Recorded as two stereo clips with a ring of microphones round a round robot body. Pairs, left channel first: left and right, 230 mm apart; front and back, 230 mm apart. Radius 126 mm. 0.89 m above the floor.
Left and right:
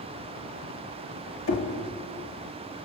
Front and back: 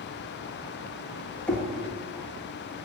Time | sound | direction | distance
1.5 | knocking | 85° left | 1.2 m